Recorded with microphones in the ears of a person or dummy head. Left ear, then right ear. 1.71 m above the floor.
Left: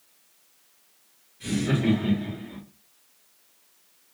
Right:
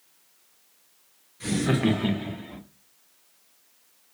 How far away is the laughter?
About 0.8 m.